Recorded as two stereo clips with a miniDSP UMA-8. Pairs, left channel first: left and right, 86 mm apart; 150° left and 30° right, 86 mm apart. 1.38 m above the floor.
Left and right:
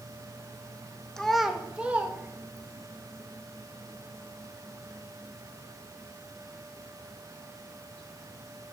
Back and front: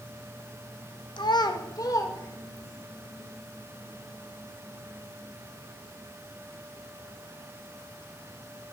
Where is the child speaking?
175° left, 0.9 m; by 2.9 s 150° right, 1.9 m.